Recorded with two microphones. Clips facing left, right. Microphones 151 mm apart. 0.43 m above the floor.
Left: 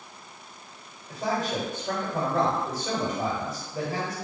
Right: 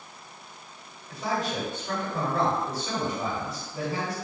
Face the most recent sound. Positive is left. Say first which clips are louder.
# left 1 dB
turn(degrees=45)  # may be behind; listen again after turning